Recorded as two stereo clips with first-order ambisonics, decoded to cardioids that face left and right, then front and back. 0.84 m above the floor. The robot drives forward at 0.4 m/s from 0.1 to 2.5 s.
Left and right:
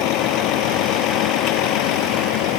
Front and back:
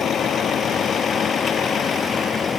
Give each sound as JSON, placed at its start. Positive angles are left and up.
{"t": 0.0, "sound": "a vehicle", "azimuth_deg": 60}